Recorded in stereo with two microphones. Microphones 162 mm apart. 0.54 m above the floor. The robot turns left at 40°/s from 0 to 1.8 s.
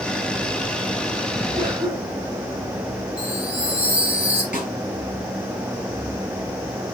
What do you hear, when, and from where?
1.5 s a cough: 20° right (ahead or behind), 2.5 m; by 2.4 s 10° right (ahead or behind), 2.5 m
3.2 s a chime: 40° right (ahead or behind), 2 m
4.5 s a snare drum: 55° left (ahead or behind), 4 m